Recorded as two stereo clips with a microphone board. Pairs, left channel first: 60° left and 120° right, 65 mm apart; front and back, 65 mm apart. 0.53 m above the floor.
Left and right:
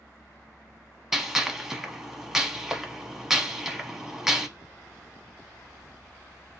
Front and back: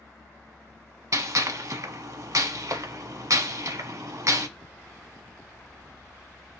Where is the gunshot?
155° left, 0.7 m.